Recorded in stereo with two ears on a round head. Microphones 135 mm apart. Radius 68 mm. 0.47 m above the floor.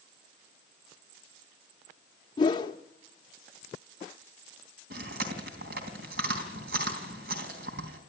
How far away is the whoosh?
About 0.9 m.